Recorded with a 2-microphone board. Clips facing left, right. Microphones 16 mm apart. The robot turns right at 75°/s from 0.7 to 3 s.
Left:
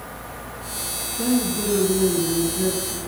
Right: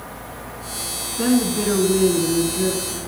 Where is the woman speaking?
105° right, 3 m; by 3.0 s 30° left, 3 m.